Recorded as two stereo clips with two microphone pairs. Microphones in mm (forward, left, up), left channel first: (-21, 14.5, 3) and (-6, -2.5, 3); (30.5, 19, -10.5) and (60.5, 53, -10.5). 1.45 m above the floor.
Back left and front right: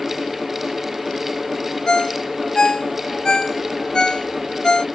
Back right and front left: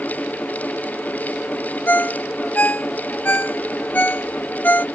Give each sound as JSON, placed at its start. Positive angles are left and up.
{"t": 1.9, "sound": "a ringtone", "azimuth_deg": 180}